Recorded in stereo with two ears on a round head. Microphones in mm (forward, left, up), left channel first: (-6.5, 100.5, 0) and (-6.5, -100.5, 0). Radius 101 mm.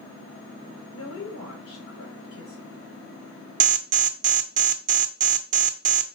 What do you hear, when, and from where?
0.9 s a woman speaking: 80° left, 4 m
3.6 s an alarm: 35° right (ahead or behind), 0.6 m